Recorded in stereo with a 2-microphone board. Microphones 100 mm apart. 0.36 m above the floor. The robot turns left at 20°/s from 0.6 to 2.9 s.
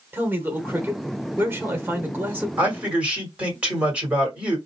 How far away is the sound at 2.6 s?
About 1.7 m.